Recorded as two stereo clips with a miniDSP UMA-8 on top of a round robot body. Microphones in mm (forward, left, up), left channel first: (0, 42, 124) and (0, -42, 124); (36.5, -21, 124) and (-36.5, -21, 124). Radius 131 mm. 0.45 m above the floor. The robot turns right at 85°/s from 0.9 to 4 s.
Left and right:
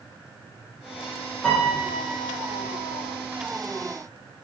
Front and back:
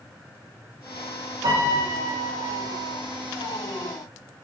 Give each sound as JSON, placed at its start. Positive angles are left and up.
{"t": 1.4, "sound": "a piano", "azimuth_deg": 165, "distance_m": 8.0}